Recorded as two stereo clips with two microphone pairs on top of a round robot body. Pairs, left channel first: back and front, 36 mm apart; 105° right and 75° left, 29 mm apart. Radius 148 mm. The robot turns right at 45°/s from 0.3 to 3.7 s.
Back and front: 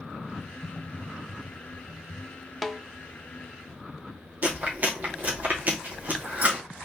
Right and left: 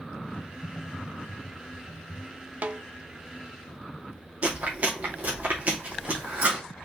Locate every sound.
0.3 s typing on a keyboard: 150° left, 0.8 m; by 2.3 s 125° right, 0.8 m
2.6 s a snare drum: 85° left, 0.6 m; by 2.8 s 95° left, 0.6 m
4.4 s chewing: 40° left, 2 m